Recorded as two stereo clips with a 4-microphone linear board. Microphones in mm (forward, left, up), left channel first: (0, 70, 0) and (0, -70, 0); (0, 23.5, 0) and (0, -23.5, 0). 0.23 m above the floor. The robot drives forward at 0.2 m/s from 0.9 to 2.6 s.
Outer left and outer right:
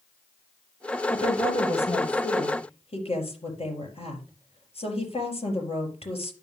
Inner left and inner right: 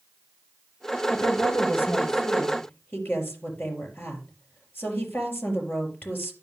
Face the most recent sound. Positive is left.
turn(degrees=45)  # may be behind; listen again after turning